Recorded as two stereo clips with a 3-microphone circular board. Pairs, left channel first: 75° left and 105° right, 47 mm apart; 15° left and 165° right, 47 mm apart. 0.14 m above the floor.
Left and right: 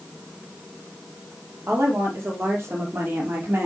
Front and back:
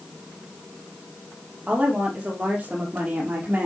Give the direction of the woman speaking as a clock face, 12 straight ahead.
3 o'clock.